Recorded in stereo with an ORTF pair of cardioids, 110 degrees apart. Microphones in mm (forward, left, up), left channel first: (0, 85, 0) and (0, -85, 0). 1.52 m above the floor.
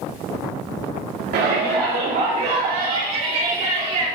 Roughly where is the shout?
Ahead right.